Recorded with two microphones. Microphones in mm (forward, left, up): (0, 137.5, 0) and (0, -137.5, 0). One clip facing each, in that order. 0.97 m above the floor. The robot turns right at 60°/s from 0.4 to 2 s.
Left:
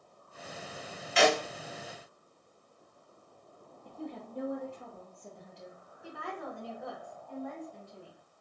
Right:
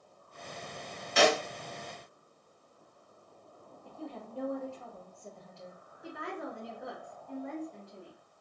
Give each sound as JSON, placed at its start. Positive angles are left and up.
{"t": 1.2, "sound": "a snare drum", "side_deg": -50, "distance_m": 0.8}
{"t": 3.9, "sound": "a woman speaking", "side_deg": 20, "distance_m": 0.8}
{"t": 6.0, "sound": "a woman speaking", "side_deg": -20, "distance_m": 0.8}